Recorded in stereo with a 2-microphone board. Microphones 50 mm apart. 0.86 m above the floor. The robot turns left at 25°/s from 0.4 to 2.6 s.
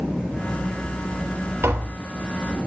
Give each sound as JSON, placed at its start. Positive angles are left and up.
{"t": 1.6, "sound": "tapping", "side_deg": -65, "distance_m": 3.0}